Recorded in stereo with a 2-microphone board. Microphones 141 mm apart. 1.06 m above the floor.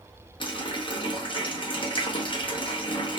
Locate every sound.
0.4 s a running tap: 40° left (ahead or behind), 0.7 m